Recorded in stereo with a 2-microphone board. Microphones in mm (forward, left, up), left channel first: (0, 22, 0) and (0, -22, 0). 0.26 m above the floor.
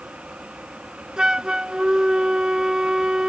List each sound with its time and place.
1.2 s a flute: 15° right (ahead or behind)